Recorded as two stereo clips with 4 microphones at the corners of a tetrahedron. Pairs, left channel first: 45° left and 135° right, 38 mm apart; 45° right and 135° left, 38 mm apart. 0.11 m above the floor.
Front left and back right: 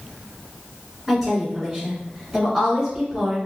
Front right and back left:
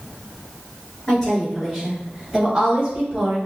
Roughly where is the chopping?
I don't hear chopping.